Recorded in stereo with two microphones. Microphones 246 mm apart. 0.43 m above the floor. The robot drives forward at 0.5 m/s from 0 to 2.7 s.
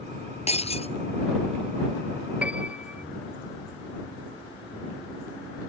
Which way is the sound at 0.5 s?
25° left (ahead or behind).